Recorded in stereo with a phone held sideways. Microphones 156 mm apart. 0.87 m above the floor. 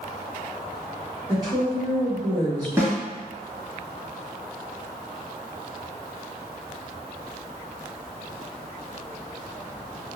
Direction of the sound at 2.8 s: 15° right (ahead or behind).